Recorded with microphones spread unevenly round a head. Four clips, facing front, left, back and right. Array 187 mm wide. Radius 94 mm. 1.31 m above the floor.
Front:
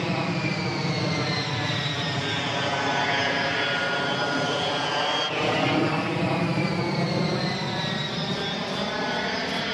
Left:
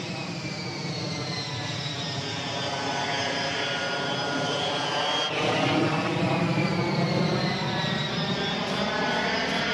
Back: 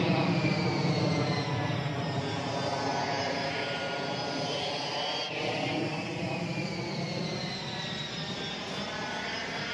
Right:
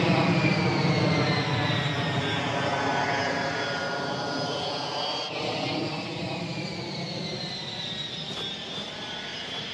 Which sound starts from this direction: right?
An aircraft, at 0.0 s.